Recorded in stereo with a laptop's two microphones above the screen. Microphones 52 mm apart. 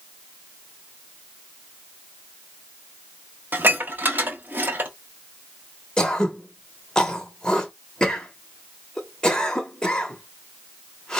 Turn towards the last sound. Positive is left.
turn(degrees=15)  # may be behind; listen again after turning